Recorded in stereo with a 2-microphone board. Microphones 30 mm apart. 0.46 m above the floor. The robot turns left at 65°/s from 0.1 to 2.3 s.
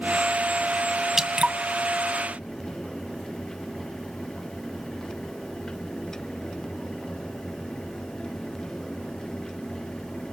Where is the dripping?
15° right (ahead or behind), 1.7 m; by 1.6 s 40° right (ahead or behind), 1.7 m.